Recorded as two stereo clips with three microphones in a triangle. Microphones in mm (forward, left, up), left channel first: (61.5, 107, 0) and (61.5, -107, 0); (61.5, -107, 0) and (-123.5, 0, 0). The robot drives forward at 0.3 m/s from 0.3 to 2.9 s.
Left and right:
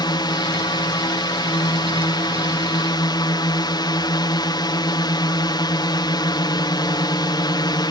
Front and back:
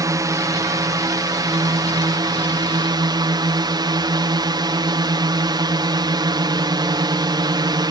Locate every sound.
0.0 s a drone: 110° left; by 7.9 s 120° left